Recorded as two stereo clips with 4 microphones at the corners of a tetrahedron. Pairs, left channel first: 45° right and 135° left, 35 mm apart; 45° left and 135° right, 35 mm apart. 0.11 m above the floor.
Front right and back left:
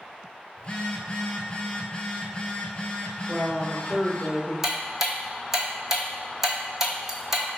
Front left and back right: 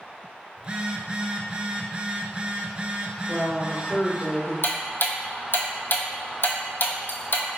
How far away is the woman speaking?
About 1.4 m.